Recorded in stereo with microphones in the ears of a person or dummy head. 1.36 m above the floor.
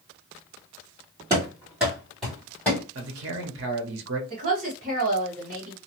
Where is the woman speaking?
45° right (ahead or behind), 1.4 m.